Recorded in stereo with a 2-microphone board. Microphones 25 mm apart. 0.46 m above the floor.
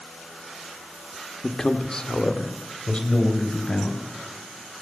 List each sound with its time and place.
1.4 s a man speaking: 15° left (ahead or behind), 0.9 m; by 4.0 s 40° left (ahead or behind), 3 m